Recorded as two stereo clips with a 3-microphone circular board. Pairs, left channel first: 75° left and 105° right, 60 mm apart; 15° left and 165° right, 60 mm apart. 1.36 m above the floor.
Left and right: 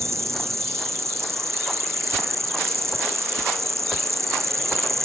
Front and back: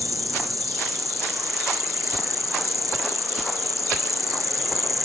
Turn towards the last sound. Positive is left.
turn(degrees=-140)